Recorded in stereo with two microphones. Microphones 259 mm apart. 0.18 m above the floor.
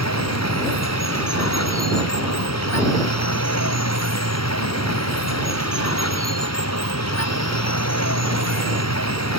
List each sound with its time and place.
0.0 s running water: 80° left